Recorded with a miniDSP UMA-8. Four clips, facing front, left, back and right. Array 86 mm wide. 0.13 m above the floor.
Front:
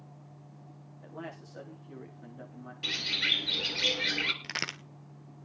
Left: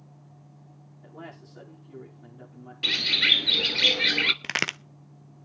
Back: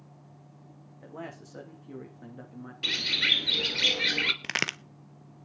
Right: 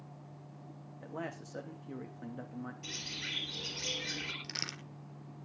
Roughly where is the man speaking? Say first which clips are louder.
Right 2 dB, back 2 dB; behind right.